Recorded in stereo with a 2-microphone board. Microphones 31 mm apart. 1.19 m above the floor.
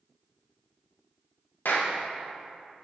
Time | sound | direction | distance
1.6 | a clap | 85° left | 0.9 m